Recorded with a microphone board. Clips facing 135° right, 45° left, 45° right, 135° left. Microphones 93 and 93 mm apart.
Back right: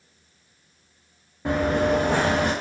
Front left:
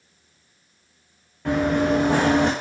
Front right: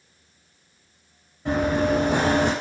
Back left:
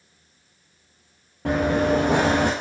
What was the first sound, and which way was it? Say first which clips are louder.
Running footsteps: front left 1 dB, back left 1 dB; 145° left.